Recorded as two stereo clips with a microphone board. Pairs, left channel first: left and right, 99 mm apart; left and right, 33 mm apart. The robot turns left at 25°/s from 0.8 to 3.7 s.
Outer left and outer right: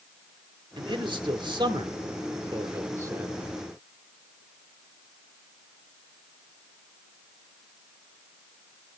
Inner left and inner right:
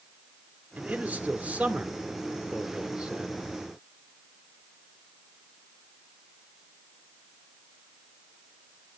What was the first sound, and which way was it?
A man speaking, 85° right.